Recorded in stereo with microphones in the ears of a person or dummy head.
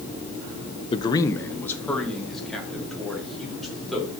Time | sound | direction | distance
0.9 | a man speaking | 30° left (ahead or behind) | 0.6 m